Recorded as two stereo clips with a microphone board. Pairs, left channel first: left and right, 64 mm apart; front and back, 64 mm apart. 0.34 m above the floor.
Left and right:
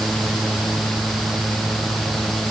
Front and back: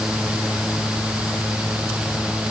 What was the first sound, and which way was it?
Only background noise.